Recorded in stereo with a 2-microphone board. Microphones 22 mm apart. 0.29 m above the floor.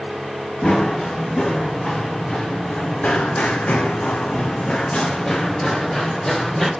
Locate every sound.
0.6 s running footsteps: 45° left (ahead or behind), 3.5 m; by 6.7 s 5° left (ahead or behind), 2.5 m